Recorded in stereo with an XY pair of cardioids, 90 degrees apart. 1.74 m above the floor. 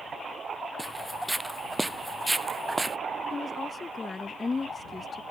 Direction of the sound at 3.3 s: 30° left.